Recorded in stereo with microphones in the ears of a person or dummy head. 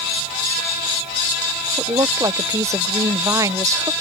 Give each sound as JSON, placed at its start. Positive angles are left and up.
{"t": 1.8, "sound": "a woman speaking", "side_deg": -20}